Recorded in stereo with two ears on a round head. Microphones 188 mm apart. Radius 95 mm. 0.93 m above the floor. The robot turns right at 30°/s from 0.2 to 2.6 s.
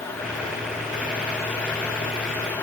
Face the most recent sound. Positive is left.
No sound to turn to.